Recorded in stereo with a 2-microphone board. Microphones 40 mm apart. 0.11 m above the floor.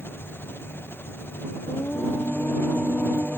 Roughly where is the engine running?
Left.